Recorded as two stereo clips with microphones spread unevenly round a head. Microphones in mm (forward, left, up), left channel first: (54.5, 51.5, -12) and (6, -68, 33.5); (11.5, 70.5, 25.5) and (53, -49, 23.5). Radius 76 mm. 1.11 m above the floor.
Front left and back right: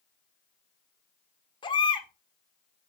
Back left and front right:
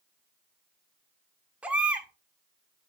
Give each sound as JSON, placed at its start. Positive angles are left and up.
{"t": 1.6, "sound": "a baby crying", "azimuth_deg": 10, "distance_m": 1.5}